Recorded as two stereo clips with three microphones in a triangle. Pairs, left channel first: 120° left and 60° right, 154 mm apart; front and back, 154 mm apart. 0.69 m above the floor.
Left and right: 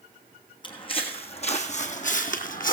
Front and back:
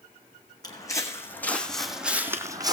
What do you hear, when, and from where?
0.6 s footsteps: 65° left, 2 m; by 2.7 s 120° left, 1.4 m